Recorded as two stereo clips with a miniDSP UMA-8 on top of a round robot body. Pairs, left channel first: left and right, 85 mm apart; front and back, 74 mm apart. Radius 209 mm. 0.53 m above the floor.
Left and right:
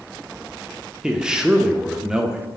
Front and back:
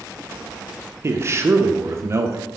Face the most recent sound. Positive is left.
turn(degrees=-165)